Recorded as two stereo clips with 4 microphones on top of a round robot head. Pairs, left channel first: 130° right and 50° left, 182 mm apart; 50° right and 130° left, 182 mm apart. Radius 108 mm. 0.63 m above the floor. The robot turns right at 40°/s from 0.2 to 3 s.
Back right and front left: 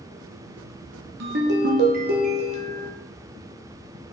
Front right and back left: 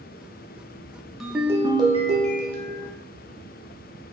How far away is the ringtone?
About 1.0 m.